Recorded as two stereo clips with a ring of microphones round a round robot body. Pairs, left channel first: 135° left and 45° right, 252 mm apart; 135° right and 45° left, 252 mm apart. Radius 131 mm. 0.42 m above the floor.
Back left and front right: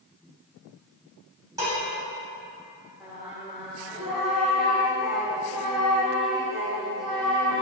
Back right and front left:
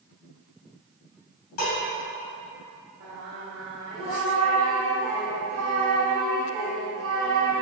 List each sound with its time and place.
1.6 s dishes clattering: 120° right, 1.9 m
3.0 s singing: 45° left, 1.7 m